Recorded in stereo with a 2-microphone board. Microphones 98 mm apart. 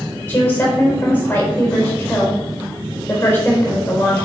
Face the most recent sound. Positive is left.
turn(degrees=20)  # may be behind; listen again after turning